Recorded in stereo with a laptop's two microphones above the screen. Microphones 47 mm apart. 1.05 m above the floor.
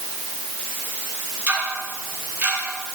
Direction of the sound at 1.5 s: 25° right (ahead or behind).